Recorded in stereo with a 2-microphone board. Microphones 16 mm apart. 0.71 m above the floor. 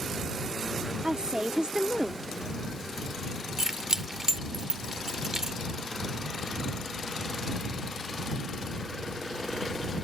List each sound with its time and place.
1.0 s a woman speaking: 55° right (ahead or behind)
3.6 s keys jangling: 30° right (ahead or behind)